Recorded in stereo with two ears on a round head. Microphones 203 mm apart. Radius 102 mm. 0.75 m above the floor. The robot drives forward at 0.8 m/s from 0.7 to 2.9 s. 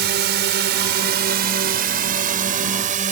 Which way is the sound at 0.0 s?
50° right (ahead or behind).